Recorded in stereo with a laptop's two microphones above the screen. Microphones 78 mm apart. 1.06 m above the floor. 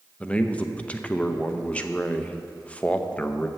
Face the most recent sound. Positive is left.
turn(degrees=15)  # may be behind; listen again after turning